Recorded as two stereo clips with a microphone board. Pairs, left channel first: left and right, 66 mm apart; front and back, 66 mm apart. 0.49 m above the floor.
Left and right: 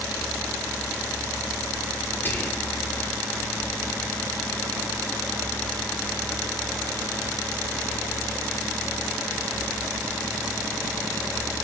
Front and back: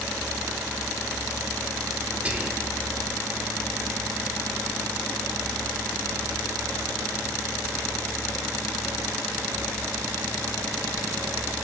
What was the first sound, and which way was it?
Whispering, 125° left.